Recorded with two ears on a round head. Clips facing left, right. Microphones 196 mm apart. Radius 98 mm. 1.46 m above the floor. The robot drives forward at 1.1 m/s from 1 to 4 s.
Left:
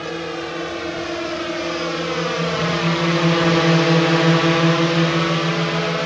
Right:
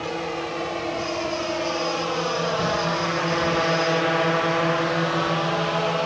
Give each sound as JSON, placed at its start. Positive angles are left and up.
{"t": 0.0, "sound": "a drone", "side_deg": 20}